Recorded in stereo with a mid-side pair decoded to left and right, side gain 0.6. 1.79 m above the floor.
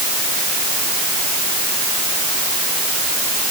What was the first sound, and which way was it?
Only background noise.